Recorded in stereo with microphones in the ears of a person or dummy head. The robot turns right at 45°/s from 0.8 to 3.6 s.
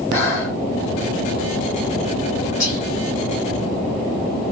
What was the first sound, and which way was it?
Breathing, 60° left (ahead or behind).